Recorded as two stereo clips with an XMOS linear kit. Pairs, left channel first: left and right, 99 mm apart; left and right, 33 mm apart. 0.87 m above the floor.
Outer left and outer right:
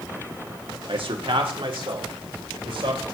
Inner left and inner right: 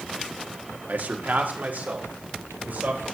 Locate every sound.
0.9 s a man speaking: 65° right (ahead or behind), 1.1 m; by 3.0 s 70° right (ahead or behind), 3.5 m